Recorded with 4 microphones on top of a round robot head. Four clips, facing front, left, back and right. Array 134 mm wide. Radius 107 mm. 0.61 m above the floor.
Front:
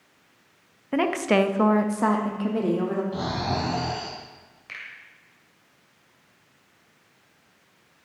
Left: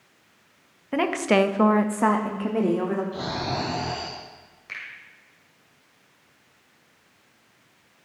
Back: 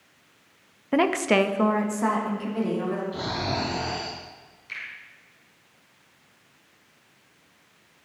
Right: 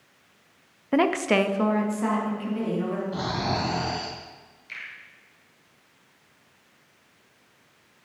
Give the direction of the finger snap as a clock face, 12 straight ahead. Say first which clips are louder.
Left 2 dB, back 2 dB; 10 o'clock.